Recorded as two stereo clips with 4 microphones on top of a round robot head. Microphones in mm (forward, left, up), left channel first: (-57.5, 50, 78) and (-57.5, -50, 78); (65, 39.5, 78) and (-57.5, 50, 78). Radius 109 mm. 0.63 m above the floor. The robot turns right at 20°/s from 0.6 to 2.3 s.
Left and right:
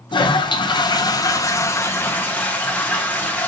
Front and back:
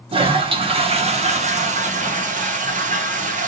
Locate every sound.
0.1 s a toilet flushing: 130° left, 1.1 m; by 3.5 s 165° left, 1.1 m